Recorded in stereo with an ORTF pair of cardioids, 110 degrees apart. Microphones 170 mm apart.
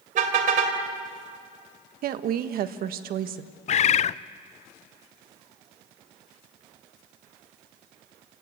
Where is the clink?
No clink in this recording.